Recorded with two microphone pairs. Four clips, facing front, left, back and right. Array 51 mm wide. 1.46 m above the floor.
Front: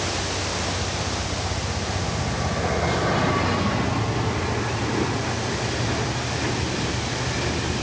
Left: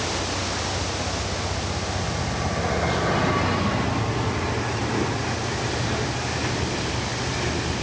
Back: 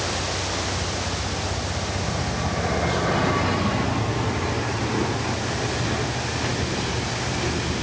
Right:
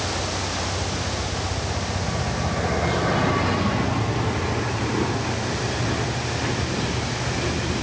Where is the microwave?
I don't hear a microwave.